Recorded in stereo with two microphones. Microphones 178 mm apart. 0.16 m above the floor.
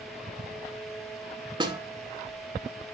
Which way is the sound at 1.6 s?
25° right (ahead or behind).